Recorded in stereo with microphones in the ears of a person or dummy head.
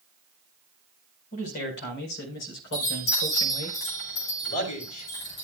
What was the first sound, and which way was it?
A man speaking, 45° left (ahead or behind).